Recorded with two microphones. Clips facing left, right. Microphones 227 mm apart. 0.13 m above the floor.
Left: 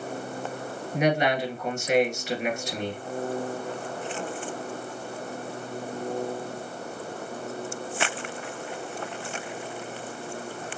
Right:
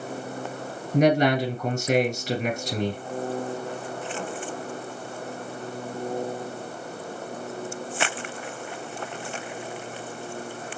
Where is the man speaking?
45° right (ahead or behind), 1.6 m.